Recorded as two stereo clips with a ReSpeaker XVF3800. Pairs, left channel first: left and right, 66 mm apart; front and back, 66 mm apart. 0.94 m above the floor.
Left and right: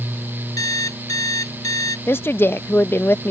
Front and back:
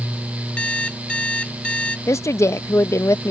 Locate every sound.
0.6 s an alarm clock: 70° left
2.1 s a woman speaking: 35° left